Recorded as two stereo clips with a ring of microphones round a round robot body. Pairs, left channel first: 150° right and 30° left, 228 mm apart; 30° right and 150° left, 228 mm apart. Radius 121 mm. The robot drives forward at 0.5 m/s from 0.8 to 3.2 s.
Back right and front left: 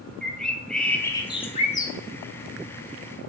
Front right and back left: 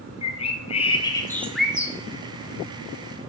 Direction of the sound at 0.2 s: 65° right.